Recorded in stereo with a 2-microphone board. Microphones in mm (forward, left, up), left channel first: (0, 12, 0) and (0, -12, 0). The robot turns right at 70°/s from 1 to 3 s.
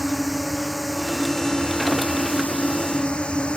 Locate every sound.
0.0 s a drone: 5° right; by 3.6 s 135° left